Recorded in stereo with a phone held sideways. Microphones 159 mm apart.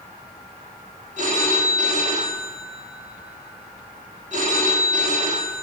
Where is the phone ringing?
50° right (ahead or behind), 1.2 m.